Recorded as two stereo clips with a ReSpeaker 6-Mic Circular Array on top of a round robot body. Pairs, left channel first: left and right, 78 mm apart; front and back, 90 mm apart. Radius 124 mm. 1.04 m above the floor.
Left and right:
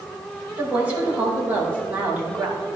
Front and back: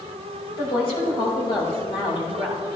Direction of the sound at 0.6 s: 20° right.